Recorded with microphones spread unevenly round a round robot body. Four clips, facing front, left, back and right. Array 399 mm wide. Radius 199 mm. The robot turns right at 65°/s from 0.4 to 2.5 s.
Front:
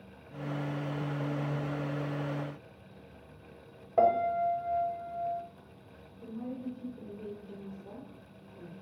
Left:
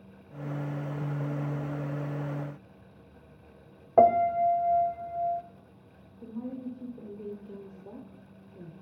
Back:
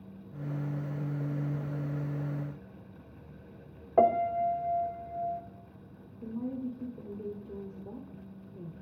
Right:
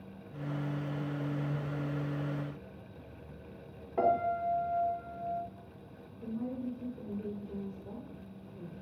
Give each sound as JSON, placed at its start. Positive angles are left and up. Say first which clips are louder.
{"t": 4.0, "sound": "a piano", "louder": "left 8 dB, back 1 dB", "azimuth_deg": 90, "distance_m": 0.8}
{"t": 6.2, "sound": "a woman speaking", "louder": "even, back 3 dB", "azimuth_deg": 160, "distance_m": 1.4}